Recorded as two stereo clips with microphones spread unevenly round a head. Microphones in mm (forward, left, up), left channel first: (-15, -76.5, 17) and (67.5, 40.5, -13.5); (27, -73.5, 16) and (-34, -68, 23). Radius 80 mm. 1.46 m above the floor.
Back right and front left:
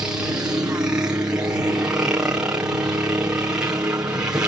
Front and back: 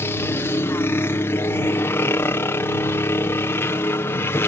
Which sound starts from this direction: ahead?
A helicopter, at 0.0 s.